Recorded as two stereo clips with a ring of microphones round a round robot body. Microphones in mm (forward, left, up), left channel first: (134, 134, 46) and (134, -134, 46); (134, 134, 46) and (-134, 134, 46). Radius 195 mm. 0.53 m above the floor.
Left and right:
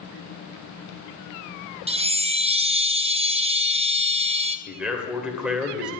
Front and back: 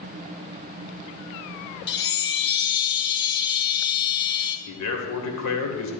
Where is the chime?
30° right, 0.8 m.